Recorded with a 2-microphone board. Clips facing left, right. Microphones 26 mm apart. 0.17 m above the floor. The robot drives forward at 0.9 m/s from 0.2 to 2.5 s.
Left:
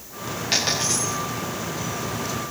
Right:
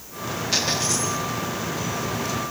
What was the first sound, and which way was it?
A dropped coin, 60° left (ahead or behind).